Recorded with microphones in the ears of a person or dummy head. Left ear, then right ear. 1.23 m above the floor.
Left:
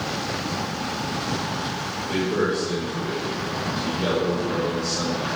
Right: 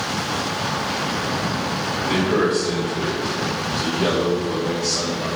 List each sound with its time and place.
2.1 s a man speaking: 25° right (ahead or behind), 1.7 m; by 5.3 s 15° left (ahead or behind), 3 m